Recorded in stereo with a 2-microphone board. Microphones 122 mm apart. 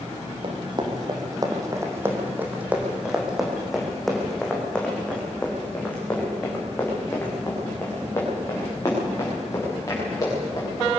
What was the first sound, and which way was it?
Running footsteps, 45° right (ahead or behind).